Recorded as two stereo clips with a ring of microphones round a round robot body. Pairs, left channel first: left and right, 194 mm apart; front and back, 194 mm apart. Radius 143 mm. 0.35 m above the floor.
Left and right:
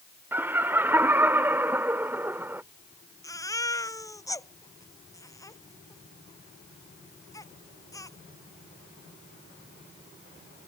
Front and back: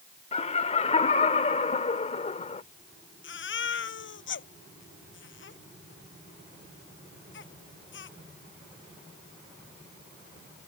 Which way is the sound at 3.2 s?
15° left.